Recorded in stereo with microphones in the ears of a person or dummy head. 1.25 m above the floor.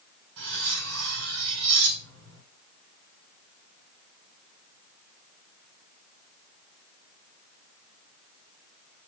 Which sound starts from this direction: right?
Cutlery clinking, at 0.4 s.